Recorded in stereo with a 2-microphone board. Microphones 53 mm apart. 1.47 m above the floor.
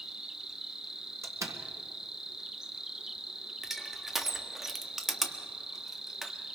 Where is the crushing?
5° right (ahead or behind), 1.4 m.